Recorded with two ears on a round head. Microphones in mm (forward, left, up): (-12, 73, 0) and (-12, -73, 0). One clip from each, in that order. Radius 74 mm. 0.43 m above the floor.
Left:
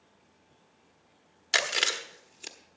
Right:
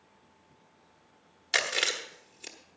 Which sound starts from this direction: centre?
Chewing, at 1.5 s.